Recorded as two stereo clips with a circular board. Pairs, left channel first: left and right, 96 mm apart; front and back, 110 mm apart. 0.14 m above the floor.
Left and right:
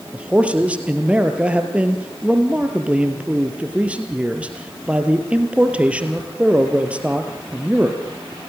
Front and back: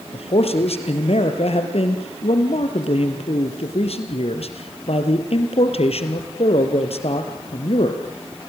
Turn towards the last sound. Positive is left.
turn(degrees=-15)